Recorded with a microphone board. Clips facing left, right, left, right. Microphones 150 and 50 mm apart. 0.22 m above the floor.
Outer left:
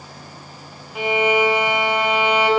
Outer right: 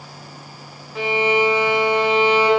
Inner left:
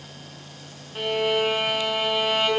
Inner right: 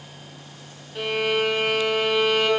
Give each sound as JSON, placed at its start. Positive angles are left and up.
{"t": 0.9, "sound": "a violin", "side_deg": 20, "distance_m": 1.4}